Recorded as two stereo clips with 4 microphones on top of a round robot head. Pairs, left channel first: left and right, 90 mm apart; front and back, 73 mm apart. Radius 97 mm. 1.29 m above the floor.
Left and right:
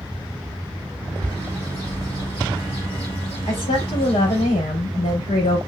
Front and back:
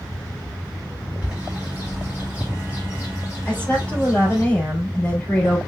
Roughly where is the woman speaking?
Left.